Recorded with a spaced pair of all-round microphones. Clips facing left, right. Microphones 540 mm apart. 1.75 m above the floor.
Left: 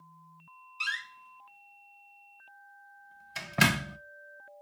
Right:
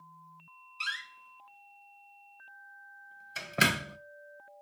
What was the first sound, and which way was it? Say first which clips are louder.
A door slam: left 2 dB; 20° left (ahead or behind).